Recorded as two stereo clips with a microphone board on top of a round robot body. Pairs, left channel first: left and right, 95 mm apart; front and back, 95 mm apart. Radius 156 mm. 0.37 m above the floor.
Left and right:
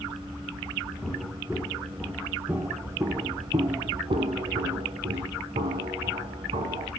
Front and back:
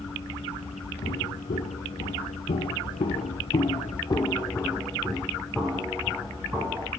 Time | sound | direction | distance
1.0 | footsteps | straight ahead | 2 m